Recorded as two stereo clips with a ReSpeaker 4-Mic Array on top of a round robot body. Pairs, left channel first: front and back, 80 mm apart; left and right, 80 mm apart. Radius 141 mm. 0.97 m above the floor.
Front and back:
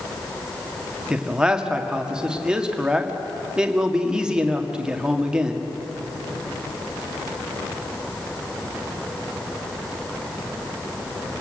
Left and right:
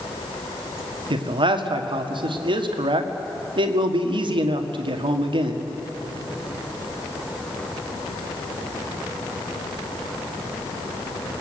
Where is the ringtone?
No ringtone in this recording.